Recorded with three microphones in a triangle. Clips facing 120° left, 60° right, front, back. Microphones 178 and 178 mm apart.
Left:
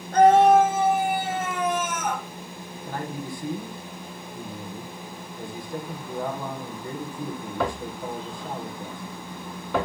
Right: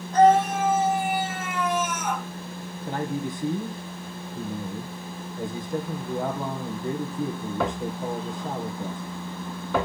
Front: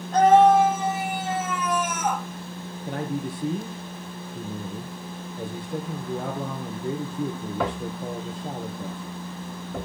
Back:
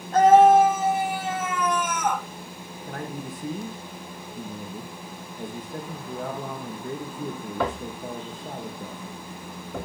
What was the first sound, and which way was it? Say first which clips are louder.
A scream: left 3 dB, back 1 dB; 100° left.